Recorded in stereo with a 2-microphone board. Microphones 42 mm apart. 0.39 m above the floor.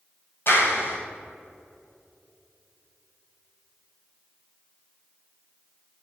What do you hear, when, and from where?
0.5 s a clap: 60° left (ahead or behind), 2 m